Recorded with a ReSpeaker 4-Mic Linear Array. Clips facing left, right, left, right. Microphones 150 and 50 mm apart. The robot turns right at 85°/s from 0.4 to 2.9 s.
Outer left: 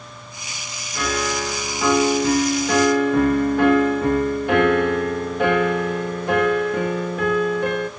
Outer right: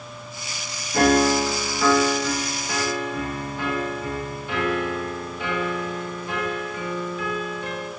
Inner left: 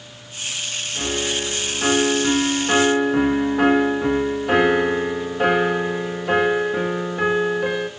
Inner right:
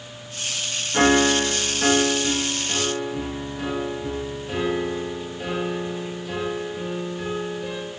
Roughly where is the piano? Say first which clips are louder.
Outer right 7 dB, inner right 8 dB; ahead right.